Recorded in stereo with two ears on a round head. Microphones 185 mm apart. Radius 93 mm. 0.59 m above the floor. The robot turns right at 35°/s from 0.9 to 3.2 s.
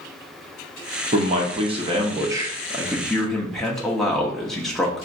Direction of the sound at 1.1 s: 70° right.